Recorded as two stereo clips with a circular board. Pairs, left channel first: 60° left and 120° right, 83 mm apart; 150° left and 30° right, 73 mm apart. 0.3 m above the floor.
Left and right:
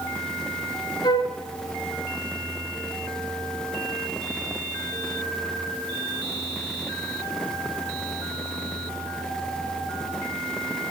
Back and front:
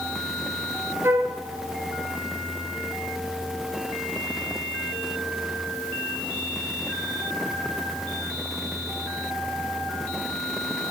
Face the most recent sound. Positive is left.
turn(degrees=25)